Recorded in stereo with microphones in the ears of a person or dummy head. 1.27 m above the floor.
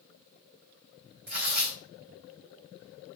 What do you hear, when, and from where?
1.3 s tearing paper: 55° right (ahead or behind), 3 m